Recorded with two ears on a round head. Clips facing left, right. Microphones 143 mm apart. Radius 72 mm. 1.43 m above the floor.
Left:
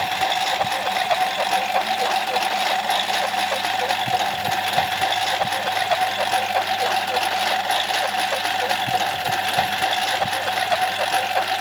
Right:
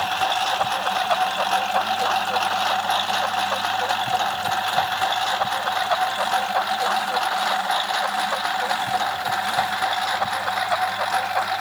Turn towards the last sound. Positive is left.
turn(degrees=30)  # may be behind; listen again after turning